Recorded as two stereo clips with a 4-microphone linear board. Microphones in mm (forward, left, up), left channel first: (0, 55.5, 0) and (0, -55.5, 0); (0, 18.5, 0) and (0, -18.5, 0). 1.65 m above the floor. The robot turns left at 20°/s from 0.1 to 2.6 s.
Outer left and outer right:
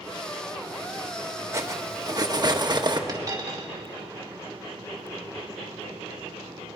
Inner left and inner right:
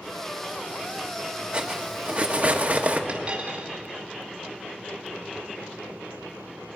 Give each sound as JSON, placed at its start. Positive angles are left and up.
{"t": 1.5, "sound": "cutlery clinking", "side_deg": -25, "distance_m": 1.2}
{"t": 3.1, "sound": "a dropped coin", "side_deg": -35, "distance_m": 2.5}